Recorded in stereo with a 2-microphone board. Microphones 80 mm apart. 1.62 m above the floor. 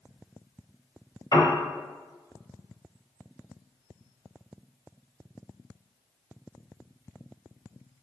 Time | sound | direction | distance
1.3 | a piano | 65° left (ahead or behind) | 1.0 m